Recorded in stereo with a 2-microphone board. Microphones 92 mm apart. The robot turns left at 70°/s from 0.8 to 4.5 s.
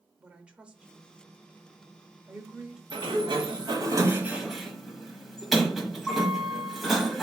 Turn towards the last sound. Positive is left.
turn(degrees=180)